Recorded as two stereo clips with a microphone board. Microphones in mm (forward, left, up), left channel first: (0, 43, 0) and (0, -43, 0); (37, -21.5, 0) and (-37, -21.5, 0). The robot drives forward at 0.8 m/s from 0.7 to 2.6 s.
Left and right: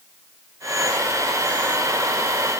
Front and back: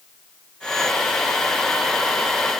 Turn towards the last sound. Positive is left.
No sound to turn to.